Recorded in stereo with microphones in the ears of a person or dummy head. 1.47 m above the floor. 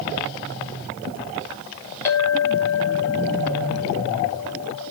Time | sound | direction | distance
2.0 | a clink | 15° left (ahead or behind) | 1.2 m